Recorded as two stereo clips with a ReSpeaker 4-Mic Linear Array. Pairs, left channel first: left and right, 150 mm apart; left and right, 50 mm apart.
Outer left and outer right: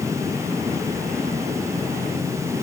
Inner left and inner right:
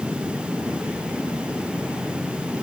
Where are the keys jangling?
I don't hear keys jangling.